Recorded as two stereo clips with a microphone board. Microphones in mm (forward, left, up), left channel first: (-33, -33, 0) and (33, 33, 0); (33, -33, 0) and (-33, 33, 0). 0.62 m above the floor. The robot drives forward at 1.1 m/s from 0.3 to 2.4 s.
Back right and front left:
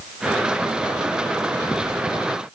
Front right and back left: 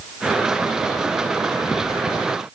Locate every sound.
Only background noise.